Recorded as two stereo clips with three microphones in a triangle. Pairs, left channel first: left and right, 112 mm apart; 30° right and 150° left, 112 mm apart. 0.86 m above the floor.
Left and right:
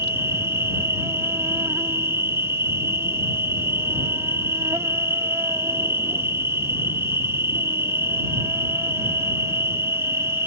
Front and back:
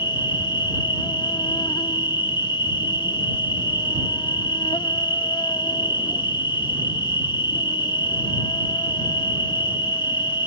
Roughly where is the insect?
Ahead right.